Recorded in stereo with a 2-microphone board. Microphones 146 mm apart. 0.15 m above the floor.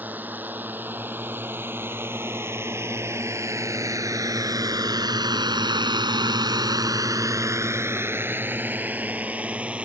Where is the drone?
10° right (ahead or behind).